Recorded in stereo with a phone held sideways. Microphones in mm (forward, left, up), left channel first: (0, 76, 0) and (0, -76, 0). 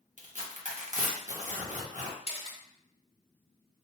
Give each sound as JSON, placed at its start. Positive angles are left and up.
{"t": 0.2, "sound": "tearing paper", "side_deg": -55, "distance_m": 0.9}
{"t": 2.3, "sound": "a camera shutter", "side_deg": 40, "distance_m": 0.7}